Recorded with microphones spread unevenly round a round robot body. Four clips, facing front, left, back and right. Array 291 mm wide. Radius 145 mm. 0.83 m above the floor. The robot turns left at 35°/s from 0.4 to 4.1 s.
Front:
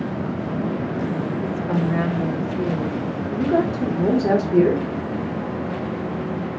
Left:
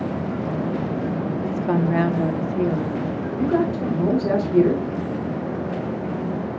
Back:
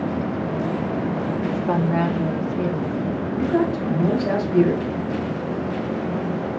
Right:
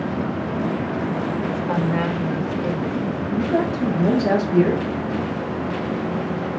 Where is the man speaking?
40° left, 3 m; by 4.8 s 10° left, 3 m.